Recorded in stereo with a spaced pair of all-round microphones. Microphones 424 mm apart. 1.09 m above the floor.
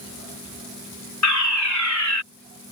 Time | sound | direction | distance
1.2 | a fire alarm | 40° left (ahead or behind) | ?